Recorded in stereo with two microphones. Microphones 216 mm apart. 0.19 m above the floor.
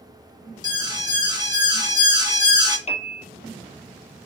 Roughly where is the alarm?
Centre.